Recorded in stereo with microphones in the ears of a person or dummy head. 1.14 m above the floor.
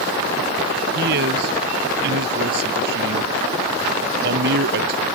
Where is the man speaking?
65° right (ahead or behind).